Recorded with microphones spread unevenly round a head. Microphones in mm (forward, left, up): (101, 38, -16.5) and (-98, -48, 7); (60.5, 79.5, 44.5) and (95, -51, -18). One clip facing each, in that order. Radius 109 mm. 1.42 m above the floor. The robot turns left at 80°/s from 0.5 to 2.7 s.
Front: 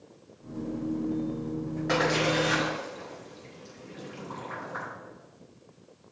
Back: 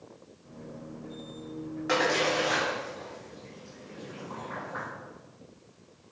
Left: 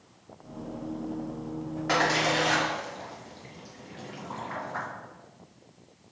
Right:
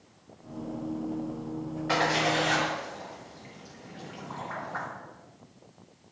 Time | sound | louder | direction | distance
1.9 | a splash | front 1 dB, even | 125° left | 1.8 m